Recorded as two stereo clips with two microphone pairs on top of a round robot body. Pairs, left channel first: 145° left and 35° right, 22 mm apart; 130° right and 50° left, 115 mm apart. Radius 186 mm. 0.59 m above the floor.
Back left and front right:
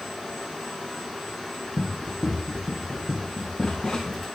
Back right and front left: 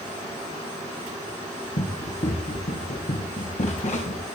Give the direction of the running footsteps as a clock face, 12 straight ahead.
4 o'clock.